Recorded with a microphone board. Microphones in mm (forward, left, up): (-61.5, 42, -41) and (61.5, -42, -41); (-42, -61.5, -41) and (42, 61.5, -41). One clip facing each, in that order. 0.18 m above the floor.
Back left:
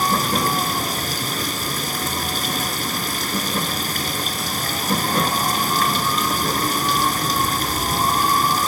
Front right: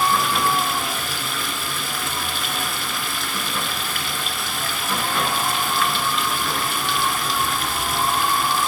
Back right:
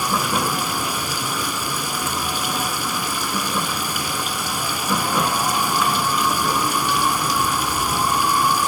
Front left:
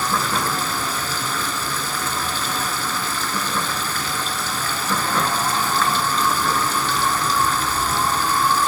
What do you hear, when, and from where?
0.0 s running water: 165° left, 1.6 m